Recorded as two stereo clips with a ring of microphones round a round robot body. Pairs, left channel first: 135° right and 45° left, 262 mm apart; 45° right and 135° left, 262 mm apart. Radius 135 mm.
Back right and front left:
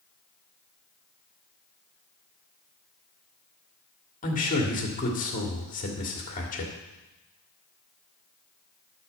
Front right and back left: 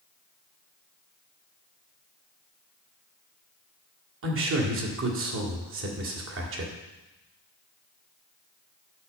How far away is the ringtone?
No ringtone in this recording.